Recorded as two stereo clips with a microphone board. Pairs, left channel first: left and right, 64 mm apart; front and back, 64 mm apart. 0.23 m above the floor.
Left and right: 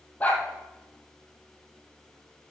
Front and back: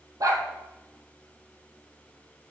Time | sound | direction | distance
0.2 | a dog barking | 155° left | 3 m